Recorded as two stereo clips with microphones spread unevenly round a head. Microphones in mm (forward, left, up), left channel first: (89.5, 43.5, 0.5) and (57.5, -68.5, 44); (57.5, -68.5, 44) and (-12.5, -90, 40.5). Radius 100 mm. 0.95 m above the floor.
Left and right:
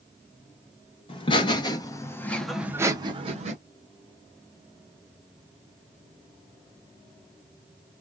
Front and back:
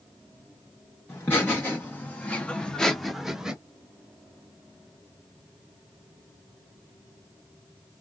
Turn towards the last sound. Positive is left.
turn(degrees=-85)